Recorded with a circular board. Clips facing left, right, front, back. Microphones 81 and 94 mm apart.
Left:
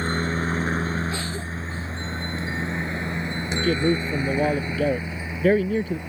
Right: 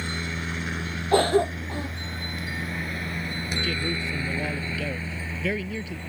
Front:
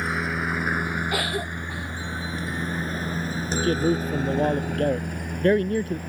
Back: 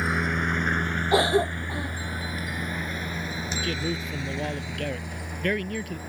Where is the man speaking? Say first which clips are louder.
Left 11 dB, front 10 dB; 50° left.